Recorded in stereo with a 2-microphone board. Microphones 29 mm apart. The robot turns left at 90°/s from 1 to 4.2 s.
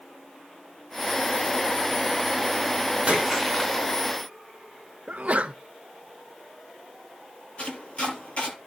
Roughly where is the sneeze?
Right.